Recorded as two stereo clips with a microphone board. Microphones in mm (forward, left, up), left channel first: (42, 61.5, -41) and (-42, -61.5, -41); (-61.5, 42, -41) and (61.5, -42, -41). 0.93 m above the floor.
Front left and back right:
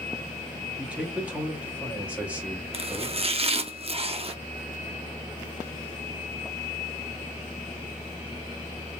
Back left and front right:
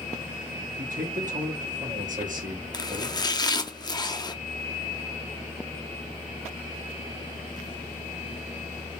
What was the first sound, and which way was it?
A man speaking, 45° right.